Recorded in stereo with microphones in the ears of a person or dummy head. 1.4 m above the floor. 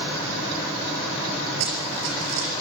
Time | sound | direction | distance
1.6 | running footsteps | 75° right (ahead or behind) | 5 m